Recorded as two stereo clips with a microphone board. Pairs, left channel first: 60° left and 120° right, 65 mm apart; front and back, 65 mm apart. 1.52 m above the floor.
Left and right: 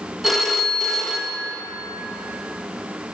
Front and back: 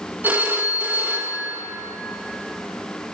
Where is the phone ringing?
155° left, 0.9 m.